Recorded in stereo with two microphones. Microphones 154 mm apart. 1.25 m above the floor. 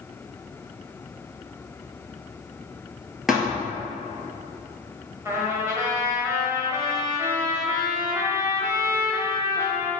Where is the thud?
Centre (ahead or behind), 1.6 m.